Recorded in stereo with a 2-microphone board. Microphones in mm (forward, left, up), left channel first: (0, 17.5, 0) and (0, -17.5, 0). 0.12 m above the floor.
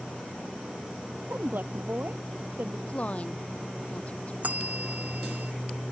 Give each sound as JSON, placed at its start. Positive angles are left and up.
{"t": 1.3, "sound": "a woman speaking", "side_deg": -65}
{"t": 2.9, "sound": "a woman speaking", "side_deg": 35}
{"t": 4.4, "sound": "a bell", "side_deg": -45}